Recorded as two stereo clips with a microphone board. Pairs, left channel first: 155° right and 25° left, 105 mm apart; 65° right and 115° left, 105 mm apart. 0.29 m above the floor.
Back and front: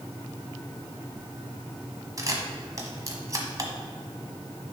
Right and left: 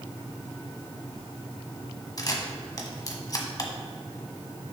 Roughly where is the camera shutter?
Ahead right.